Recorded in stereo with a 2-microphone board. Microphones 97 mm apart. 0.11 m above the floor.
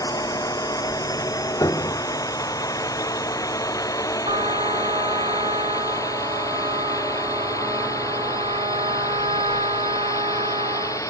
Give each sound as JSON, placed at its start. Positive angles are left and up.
{"t": 0.0, "sound": "a drone", "side_deg": 35}
{"t": 1.6, "sound": "a piano", "side_deg": 40}
{"t": 4.2, "sound": "a trumpet", "side_deg": -80}